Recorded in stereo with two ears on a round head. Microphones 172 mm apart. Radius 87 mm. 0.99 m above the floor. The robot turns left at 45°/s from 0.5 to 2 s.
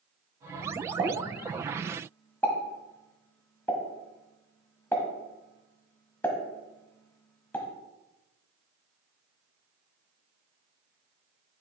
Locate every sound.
1.0 s a pop: 30° right (ahead or behind), 1.3 m; by 7.7 s 10° left (ahead or behind), 1.3 m